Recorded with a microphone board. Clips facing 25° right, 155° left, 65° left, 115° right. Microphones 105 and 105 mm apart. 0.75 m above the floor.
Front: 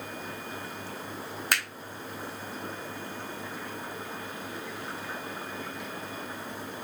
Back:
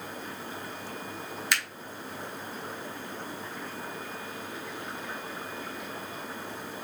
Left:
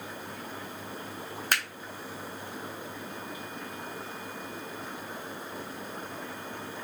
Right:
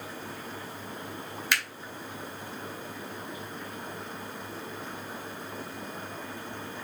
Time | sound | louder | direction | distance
1.5 | a finger snap | front 1 dB, left 1 dB | 20° left | 1.0 m